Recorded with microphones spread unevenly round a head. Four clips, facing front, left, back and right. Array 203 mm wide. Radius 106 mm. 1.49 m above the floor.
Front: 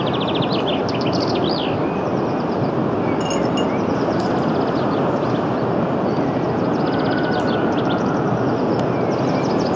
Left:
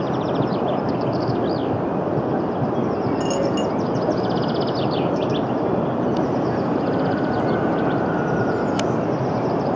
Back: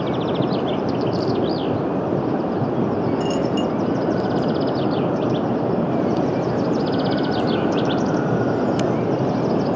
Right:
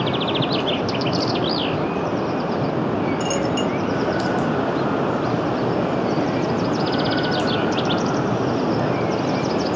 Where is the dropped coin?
10° left.